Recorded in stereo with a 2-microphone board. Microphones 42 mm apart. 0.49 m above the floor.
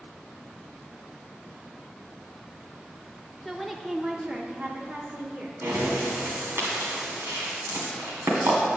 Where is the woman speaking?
Centre (ahead or behind), 0.7 m; by 5.5 s 45° right (ahead or behind), 1.1 m.